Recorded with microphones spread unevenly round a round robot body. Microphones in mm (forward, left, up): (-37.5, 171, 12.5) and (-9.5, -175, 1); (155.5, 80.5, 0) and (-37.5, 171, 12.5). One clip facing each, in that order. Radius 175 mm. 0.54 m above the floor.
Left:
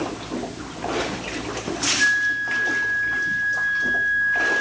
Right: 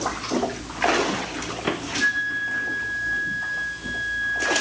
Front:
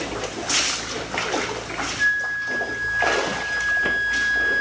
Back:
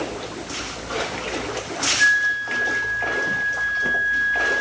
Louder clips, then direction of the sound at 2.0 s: Right 1 dB, back 3 dB; 90° left.